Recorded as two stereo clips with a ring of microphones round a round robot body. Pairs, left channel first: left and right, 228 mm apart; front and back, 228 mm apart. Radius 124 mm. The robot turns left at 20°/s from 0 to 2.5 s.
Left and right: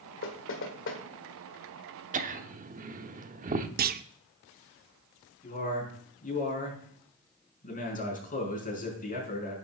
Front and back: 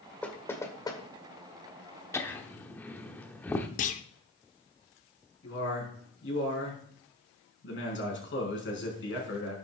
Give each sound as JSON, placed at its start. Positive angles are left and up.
{"t": 0.2, "sound": "knocking", "azimuth_deg": 85, "distance_m": 1.8}
{"t": 2.1, "sound": "laughter", "azimuth_deg": -70, "distance_m": 0.9}
{"t": 3.8, "sound": "a clunk", "azimuth_deg": -50, "distance_m": 0.6}
{"t": 5.4, "sound": "a man speaking", "azimuth_deg": 35, "distance_m": 5.0}